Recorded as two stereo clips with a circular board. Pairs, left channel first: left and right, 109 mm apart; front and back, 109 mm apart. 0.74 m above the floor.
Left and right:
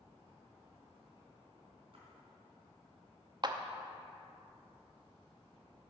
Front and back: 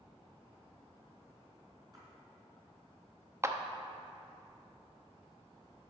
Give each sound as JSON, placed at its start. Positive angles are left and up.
{"t": 1.9, "sound": "a splash", "azimuth_deg": -125, "distance_m": 3.5}
{"t": 3.4, "sound": "a clap", "azimuth_deg": -125, "distance_m": 0.6}